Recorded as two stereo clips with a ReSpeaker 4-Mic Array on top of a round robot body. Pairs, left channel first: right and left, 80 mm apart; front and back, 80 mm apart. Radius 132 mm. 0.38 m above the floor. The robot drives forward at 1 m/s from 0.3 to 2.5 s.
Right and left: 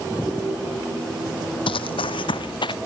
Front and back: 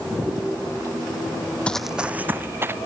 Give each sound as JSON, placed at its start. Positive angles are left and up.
{"t": 1.7, "sound": "running footsteps", "azimuth_deg": -75}